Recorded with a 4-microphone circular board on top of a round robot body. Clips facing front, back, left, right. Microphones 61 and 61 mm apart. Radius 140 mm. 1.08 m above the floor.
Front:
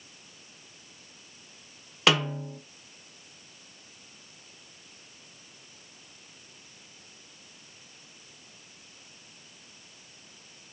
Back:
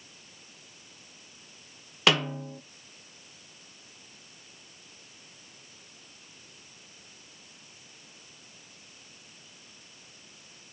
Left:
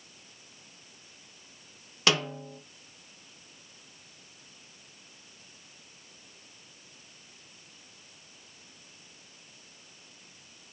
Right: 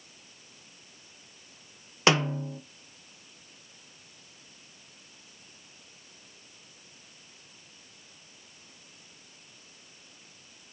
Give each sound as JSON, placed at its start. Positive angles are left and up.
{"t": 2.1, "sound": "a snare drum", "azimuth_deg": -90, "distance_m": 0.7}